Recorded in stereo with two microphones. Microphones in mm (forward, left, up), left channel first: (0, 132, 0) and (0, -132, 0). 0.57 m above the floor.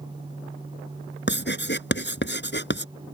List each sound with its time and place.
1.3 s writing: 40° left (ahead or behind)